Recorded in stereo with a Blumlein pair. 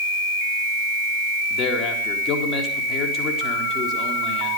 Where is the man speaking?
30° left, 3.5 m.